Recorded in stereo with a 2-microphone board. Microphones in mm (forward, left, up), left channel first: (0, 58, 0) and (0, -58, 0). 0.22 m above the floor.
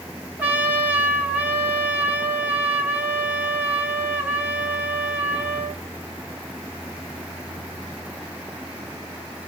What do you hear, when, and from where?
0.4 s a trumpet: 15° right (ahead or behind), 0.9 m